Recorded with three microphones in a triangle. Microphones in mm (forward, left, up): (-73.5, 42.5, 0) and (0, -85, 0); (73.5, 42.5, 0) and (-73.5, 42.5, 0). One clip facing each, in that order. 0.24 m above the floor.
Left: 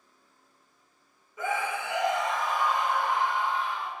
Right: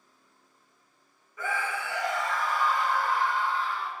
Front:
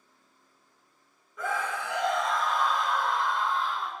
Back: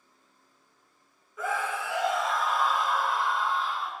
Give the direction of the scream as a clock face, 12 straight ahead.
9 o'clock.